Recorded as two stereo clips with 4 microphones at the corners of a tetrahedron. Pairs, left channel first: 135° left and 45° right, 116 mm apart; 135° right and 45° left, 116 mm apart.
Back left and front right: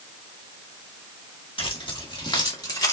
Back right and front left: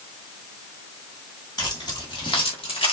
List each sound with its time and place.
1.6 s keys jangling: 175° left, 2.5 m; by 2.9 s 170° right, 2 m